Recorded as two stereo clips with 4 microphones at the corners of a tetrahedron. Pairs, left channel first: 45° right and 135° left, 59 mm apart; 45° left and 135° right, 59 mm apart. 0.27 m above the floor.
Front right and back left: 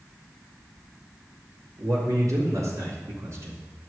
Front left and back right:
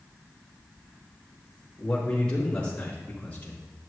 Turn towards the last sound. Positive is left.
turn(degrees=105)